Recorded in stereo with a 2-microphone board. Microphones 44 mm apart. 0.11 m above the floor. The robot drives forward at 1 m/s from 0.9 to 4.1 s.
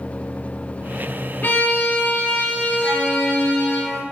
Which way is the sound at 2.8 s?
10° right (ahead or behind).